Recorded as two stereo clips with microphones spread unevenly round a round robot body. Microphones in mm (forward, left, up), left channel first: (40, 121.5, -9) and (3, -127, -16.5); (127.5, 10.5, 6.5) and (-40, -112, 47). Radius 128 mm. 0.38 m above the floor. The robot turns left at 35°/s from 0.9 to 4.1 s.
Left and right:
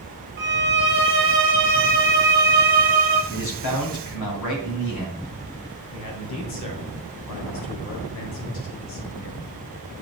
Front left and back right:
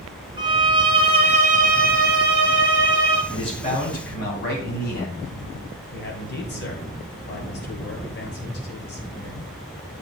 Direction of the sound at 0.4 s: 75° right.